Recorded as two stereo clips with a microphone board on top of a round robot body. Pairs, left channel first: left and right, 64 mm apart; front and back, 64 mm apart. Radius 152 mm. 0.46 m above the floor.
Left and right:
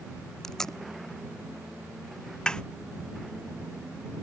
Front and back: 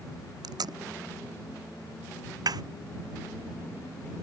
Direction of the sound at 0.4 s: 170° left.